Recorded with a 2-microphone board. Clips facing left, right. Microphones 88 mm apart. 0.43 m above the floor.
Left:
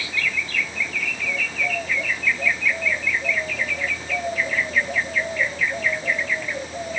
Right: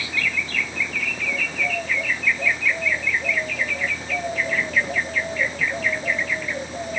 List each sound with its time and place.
Only background noise.